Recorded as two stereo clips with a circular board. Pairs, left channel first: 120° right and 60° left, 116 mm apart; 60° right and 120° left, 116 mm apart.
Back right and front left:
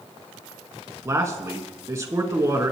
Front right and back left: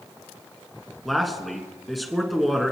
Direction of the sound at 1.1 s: 30° left.